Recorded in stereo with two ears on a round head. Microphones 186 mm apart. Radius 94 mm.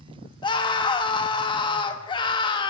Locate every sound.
0.4 s a scream: 25° left (ahead or behind), 1.1 m